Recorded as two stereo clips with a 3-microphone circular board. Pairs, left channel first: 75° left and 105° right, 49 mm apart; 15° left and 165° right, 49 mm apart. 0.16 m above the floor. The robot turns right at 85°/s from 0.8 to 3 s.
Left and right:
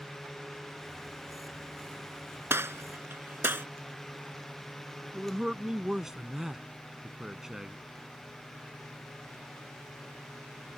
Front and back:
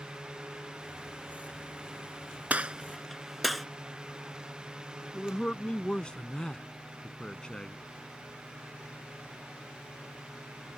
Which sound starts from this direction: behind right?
A gunshot, at 2.5 s.